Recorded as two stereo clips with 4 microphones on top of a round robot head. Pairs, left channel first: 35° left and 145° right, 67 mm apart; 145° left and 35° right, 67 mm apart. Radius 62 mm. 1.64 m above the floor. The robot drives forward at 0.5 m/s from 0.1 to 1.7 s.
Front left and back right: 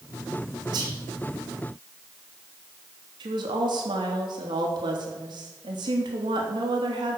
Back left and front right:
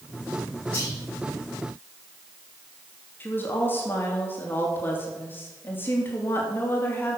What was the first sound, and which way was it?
Whispering, 140° right.